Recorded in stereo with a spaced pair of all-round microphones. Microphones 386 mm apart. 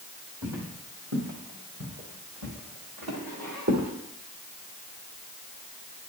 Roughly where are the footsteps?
Right.